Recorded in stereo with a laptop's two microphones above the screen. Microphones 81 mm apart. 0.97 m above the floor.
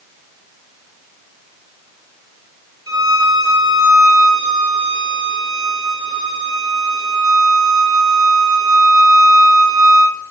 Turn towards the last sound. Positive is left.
turn(degrees=-55)  # may be behind; listen again after turning